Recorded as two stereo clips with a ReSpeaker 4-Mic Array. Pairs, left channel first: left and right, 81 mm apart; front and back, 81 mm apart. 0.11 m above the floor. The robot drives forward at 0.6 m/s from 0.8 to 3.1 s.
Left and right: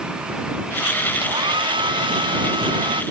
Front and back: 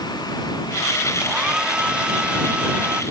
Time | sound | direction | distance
1.2 | a hair dryer | 100° right | ?